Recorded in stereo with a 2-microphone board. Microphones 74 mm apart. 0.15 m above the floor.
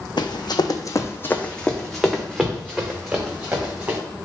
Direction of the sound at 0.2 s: 85° left.